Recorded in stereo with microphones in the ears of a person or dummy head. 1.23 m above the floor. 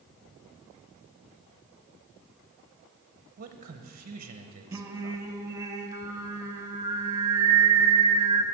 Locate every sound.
3.4 s a man speaking: 40° right (ahead or behind), 0.8 m
4.7 s singing: 15° right (ahead or behind), 0.9 m